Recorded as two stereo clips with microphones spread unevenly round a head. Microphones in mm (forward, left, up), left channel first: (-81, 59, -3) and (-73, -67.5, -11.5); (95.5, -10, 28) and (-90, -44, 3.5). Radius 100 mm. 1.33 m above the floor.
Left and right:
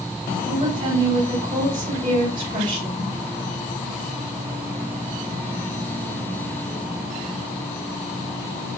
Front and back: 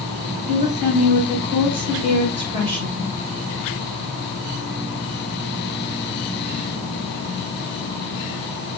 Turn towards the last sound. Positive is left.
turn(degrees=-110)